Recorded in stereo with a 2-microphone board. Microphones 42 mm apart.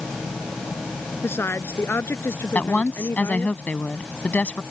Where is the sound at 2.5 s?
35° left (ahead or behind).